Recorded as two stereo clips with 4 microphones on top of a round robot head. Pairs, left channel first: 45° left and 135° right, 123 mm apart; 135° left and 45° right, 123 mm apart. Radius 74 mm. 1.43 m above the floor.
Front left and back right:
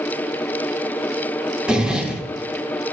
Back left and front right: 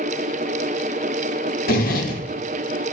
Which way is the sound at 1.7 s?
145° left.